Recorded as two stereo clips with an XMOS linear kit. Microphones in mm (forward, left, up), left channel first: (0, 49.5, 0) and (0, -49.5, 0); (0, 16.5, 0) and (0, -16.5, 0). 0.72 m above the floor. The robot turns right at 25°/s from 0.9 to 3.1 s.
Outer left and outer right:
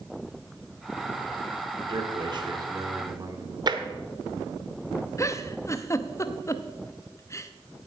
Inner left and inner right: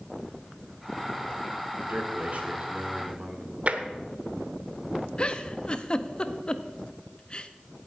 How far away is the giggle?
About 0.7 m.